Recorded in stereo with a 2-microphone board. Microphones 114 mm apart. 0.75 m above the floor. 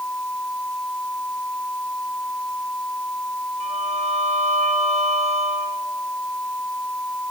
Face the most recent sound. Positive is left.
turn(degrees=-70)  # may be behind; listen again after turning